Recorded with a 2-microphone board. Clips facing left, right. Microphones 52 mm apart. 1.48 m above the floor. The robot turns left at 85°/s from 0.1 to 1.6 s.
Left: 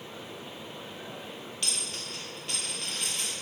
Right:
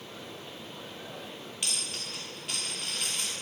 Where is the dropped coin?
10° right (ahead or behind), 1.5 m.